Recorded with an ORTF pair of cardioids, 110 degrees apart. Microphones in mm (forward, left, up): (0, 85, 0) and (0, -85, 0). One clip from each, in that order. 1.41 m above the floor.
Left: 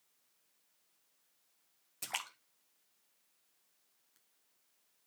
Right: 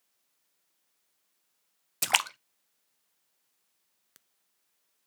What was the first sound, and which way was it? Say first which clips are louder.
A splash: right 15 dB; 65° right.